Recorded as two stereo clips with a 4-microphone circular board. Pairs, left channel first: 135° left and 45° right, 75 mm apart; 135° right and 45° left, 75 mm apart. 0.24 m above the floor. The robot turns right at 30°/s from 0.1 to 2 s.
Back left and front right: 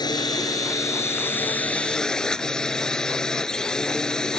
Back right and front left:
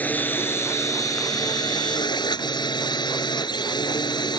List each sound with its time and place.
0.0 s a drone: 160° left; by 4.4 s 145° right